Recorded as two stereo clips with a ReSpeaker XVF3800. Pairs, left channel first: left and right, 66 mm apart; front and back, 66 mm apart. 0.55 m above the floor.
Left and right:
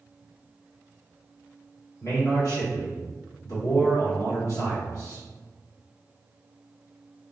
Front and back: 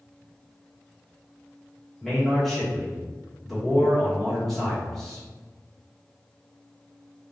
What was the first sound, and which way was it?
A man speaking, 85° left.